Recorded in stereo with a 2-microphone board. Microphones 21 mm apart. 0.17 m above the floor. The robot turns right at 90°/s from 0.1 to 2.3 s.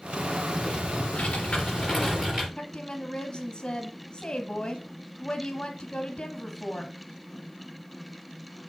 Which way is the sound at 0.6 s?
50° left.